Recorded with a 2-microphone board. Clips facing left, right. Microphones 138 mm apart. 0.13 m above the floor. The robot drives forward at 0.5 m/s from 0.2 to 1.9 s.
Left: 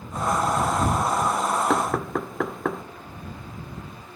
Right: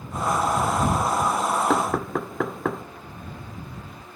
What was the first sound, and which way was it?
Knocking, centre (ahead or behind).